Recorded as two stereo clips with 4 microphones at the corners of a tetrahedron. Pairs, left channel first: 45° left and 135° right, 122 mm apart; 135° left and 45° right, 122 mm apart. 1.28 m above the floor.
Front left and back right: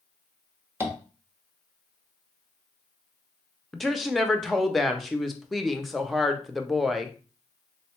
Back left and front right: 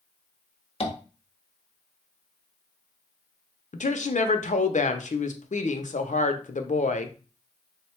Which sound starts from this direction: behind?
Tapping, at 0.8 s.